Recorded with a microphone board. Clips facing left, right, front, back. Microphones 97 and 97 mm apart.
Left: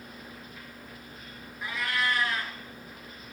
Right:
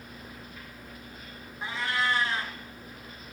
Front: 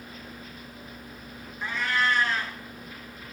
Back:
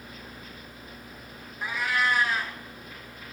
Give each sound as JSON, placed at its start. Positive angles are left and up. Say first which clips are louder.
{"t": 1.6, "sound": "a cat meowing", "louder": "right 1 dB, even", "azimuth_deg": -105, "distance_m": 0.6}